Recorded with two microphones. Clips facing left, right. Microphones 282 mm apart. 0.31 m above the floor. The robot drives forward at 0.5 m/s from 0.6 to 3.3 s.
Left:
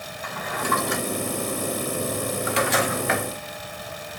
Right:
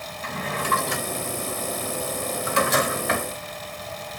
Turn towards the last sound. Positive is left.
turn(degrees=-40)  # may be behind; listen again after turning